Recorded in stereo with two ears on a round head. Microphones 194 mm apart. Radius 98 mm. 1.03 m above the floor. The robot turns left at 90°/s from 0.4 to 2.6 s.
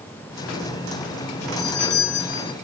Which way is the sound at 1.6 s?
105° left.